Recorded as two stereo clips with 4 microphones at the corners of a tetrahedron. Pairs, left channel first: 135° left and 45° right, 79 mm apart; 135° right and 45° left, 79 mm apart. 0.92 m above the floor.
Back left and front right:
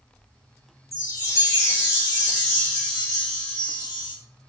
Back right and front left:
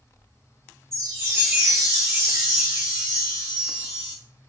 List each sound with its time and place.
0.9 s a chime: 95° left, 1.4 m